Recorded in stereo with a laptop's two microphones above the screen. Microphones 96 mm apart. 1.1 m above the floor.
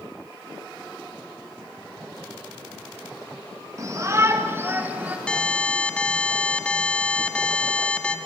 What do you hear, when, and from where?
3.8 s a shout: 35° right (ahead or behind), 1.9 m; by 5.2 s 15° right (ahead or behind), 1.5 m
5.3 s an alarm: 10° left (ahead or behind), 1.2 m